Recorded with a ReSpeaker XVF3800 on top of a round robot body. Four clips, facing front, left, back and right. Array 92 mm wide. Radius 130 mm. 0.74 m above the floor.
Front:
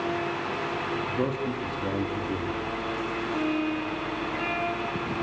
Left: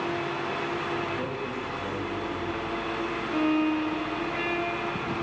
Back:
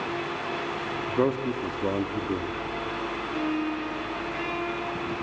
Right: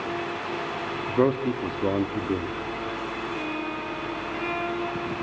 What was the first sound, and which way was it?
A man speaking, 115° right.